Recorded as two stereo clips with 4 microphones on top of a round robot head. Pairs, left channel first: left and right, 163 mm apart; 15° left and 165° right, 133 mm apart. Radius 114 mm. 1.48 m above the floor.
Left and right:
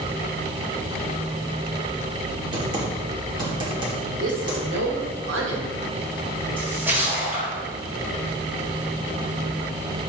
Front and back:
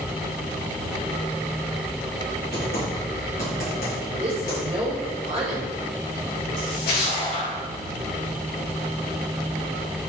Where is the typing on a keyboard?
30° right, 2.5 m.